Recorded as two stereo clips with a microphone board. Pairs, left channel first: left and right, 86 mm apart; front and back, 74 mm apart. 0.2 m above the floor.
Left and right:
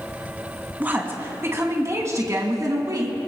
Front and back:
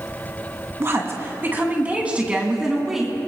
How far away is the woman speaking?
About 2 m.